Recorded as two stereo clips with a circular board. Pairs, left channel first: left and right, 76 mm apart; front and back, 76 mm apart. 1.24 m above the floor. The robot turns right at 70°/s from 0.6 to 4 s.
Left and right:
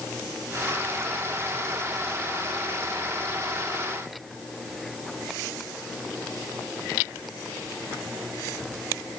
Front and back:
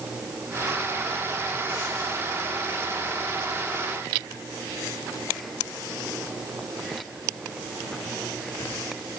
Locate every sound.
Only background noise.